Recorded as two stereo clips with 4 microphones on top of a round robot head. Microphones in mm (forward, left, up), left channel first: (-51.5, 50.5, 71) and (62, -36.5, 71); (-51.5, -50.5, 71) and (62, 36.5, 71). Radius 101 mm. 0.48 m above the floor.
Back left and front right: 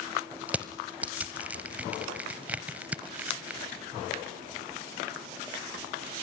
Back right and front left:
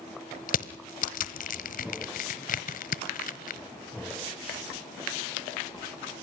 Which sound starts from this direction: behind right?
Crushing, at 0.5 s.